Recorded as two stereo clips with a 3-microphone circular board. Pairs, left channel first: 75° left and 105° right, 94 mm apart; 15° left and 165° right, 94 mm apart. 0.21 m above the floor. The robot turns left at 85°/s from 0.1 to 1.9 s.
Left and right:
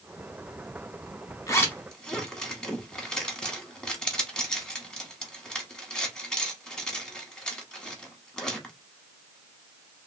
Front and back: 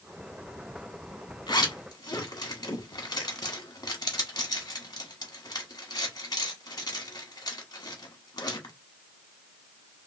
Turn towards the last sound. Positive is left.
turn(degrees=-5)